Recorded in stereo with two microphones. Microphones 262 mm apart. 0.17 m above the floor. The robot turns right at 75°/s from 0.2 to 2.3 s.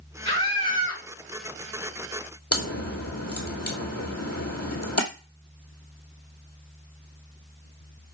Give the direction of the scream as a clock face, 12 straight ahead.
3 o'clock.